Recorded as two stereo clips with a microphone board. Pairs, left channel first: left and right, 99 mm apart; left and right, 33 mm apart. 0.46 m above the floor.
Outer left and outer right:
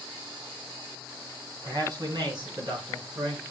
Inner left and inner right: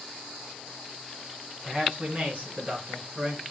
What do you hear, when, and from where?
1.6 s a man speaking: 40° right (ahead or behind), 3.5 m; by 3.4 s 55° right (ahead or behind), 4.5 m